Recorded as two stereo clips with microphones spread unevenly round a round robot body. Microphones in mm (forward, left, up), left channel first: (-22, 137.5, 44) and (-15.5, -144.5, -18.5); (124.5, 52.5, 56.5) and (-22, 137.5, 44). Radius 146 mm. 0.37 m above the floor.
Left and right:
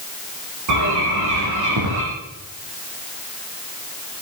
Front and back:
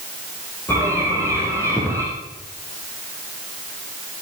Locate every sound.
0.7 s a bird: 115° right, 7.5 m